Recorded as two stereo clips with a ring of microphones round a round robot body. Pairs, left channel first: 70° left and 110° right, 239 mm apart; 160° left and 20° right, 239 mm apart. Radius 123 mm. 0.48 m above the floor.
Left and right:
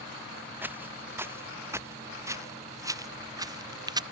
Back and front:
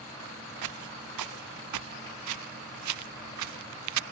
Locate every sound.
0.6 s footsteps: 30° right; by 4.0 s 40° right